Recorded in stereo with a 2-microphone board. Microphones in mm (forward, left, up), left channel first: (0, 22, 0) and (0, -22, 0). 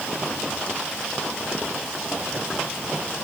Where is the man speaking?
No man speaking in this recording.